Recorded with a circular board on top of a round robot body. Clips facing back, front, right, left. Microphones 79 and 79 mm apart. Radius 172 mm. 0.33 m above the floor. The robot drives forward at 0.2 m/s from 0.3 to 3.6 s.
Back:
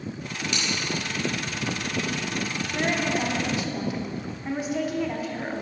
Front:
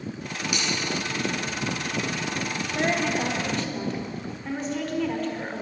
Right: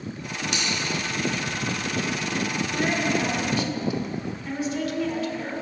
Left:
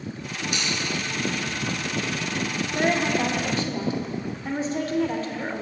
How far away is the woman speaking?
About 1.2 m.